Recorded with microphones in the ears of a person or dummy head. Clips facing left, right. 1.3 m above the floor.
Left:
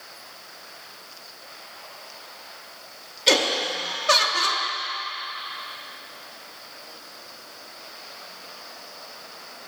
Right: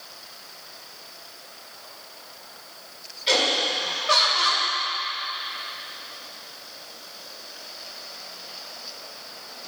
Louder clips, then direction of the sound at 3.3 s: Left 2 dB; 60° left (ahead or behind).